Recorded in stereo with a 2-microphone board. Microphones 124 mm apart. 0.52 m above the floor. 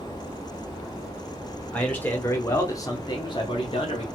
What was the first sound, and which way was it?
A man speaking, 10° left (ahead or behind).